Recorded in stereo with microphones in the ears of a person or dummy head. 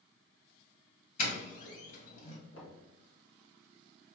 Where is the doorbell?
50° left (ahead or behind), 1.8 m.